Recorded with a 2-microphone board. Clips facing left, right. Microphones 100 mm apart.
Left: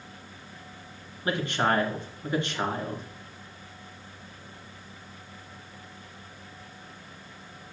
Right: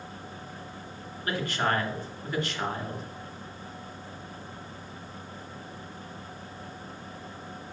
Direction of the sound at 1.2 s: 25° left (ahead or behind).